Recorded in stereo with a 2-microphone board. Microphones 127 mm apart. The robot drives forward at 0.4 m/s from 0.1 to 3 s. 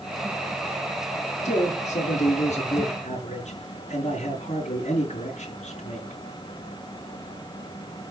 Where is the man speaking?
80° left, 5.5 m; by 6.2 s 75° left (ahead or behind), 5.5 m.